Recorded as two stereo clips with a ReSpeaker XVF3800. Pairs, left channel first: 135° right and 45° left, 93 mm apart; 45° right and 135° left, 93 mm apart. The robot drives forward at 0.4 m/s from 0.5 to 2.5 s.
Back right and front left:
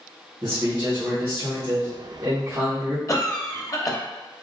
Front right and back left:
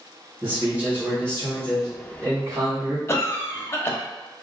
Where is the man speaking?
70° left, 1.8 m; by 3.0 s 105° left, 1.7 m.